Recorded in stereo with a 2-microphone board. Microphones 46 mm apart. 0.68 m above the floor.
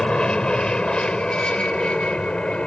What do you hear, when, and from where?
0.0 s an aircraft: 20° left (ahead or behind); by 2.7 s 25° left (ahead or behind)